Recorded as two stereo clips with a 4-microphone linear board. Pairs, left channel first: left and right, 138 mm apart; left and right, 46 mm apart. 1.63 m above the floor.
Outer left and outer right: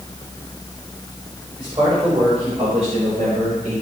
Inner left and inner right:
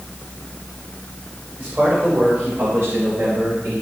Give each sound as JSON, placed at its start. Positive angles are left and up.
{"t": 1.6, "sound": "a man speaking", "side_deg": -45, "distance_m": 5.0}